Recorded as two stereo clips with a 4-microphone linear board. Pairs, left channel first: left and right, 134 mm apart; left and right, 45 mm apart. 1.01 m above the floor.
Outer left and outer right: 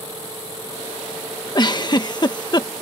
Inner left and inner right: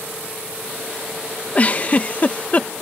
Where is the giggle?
35° left (ahead or behind).